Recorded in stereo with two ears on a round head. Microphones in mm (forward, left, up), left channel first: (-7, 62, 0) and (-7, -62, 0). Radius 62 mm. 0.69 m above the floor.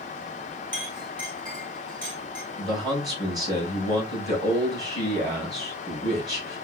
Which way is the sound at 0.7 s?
30° right (ahead or behind).